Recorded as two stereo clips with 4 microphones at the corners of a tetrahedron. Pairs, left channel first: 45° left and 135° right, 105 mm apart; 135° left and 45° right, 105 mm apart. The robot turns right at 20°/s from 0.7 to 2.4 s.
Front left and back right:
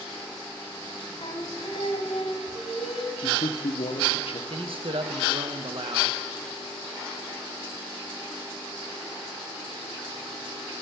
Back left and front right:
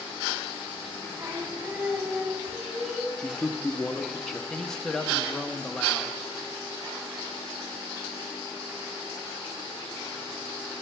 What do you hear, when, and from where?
1.2 s singing: 10° left, 2.0 m; by 3.1 s 35° left, 2.0 m
3.2 s a man speaking: 50° left, 0.8 m
4.5 s a man speaking: 140° right, 1.0 m